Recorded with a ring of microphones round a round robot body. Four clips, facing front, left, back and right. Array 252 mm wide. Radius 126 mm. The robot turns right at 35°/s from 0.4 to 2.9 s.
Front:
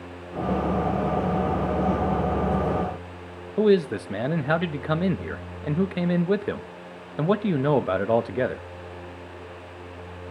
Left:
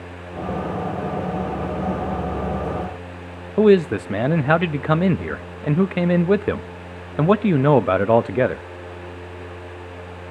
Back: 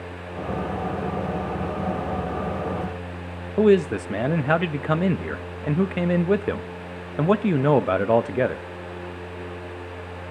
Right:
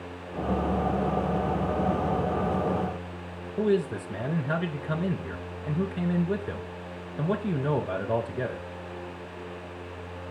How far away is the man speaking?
About 0.5 m.